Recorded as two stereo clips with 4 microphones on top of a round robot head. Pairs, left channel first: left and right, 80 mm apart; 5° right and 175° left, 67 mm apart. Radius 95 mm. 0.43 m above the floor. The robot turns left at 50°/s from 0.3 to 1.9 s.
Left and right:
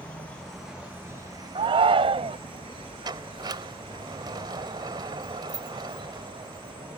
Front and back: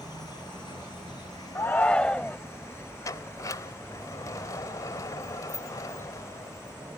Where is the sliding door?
50° right.